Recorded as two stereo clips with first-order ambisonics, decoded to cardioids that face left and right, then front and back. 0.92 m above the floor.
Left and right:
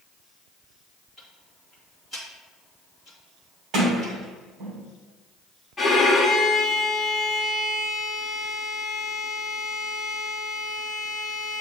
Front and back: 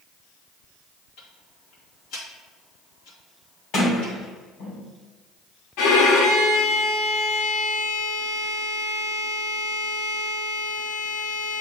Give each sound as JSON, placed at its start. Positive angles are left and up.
{"t": 1.2, "sound": "ticking", "azimuth_deg": -10, "distance_m": 2.5}
{"t": 3.7, "sound": "a sliding door", "azimuth_deg": -40, "distance_m": 3.0}
{"t": 5.8, "sound": "a violin", "azimuth_deg": 15, "distance_m": 1.0}